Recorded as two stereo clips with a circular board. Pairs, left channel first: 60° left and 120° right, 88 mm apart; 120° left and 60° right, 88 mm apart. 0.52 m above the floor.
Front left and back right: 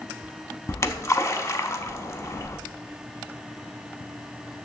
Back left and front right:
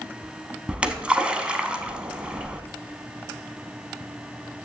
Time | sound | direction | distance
0.7 | a splash | 15° left | 0.6 m